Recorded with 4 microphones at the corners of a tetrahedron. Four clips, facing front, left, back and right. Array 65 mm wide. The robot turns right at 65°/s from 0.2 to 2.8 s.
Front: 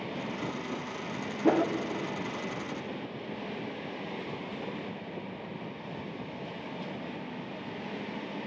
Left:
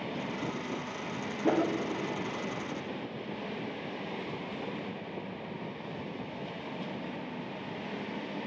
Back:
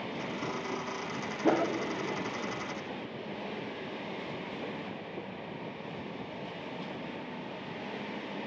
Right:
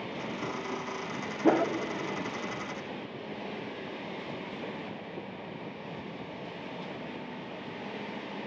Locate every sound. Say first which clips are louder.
1.4 s a whoosh: right 3 dB, front 2 dB; 80° right, 0.9 m; by 1.7 s 60° right, 0.9 m